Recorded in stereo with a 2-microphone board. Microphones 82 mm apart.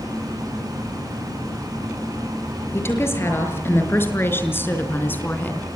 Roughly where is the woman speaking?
Left.